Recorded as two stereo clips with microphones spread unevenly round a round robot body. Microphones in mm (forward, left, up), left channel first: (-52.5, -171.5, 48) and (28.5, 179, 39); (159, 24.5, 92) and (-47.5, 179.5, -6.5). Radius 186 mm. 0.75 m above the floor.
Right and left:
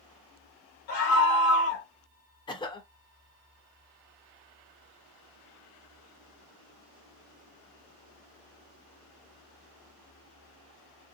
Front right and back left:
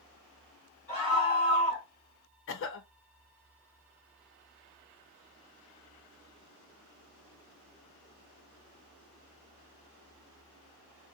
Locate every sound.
0.9 s a scream: 130° right, 1.4 m
2.5 s a cough: 45° right, 0.7 m